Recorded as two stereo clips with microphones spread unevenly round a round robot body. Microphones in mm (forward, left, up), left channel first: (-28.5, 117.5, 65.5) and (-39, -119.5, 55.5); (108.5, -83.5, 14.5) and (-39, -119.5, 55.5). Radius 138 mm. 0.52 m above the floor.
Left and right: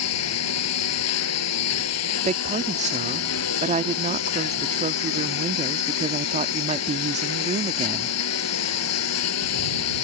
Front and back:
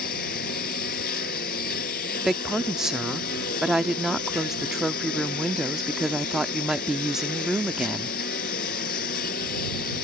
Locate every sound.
0.0 s a lawn mower: 60° left
2.2 s a woman speaking: 60° right